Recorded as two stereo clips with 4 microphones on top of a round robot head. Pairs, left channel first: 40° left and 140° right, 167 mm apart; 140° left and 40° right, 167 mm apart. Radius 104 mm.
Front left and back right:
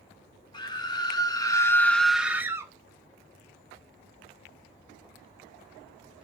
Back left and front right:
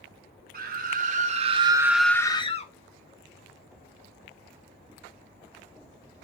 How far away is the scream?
About 1.4 m.